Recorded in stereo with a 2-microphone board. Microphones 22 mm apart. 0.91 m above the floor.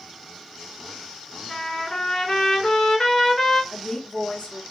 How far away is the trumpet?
About 2.5 m.